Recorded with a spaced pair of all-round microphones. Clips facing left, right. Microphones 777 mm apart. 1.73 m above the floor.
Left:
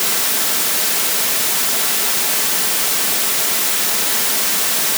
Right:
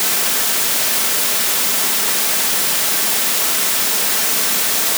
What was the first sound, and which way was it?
Only background noise.